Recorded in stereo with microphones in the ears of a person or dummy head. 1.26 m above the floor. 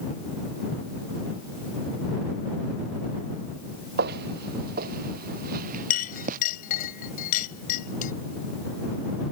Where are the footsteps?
55° right (ahead or behind); by 6.4 s 45° right (ahead or behind).